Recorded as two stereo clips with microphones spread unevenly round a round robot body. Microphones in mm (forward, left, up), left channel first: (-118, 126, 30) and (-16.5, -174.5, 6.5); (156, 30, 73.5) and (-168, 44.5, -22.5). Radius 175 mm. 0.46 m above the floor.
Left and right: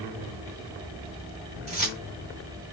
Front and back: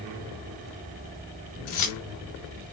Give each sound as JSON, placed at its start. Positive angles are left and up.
{"t": 1.7, "sound": "keys jangling", "azimuth_deg": -5, "distance_m": 1.4}